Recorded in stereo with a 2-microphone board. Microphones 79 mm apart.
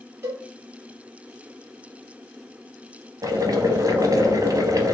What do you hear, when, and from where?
0.2 s a cowbell: 30° right (ahead or behind), 1.7 m
3.2 s boiling: 50° right (ahead or behind), 0.6 m